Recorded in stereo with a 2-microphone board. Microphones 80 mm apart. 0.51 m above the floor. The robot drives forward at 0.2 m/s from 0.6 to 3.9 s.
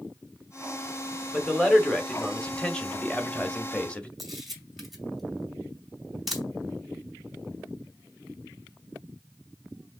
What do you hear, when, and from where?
1.3 s a man speaking: 10° left (ahead or behind), 1.1 m; by 4.1 s 15° left (ahead or behind), 0.8 m
4.2 s a camera shutter: centre (ahead or behind), 2 m